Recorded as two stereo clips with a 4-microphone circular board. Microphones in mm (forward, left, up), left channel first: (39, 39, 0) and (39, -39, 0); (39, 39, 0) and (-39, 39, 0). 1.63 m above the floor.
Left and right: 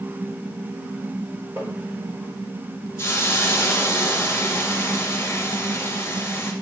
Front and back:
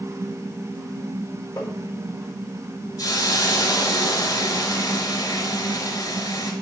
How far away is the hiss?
About 2.5 m.